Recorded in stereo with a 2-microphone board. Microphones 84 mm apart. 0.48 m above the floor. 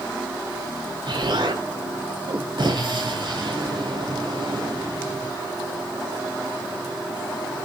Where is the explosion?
65° right (ahead or behind), 3.5 m.